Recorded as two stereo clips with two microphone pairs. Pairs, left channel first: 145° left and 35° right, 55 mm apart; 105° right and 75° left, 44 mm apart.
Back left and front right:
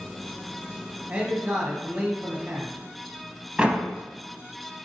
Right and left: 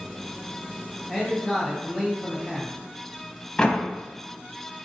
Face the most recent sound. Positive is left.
turn(degrees=-60)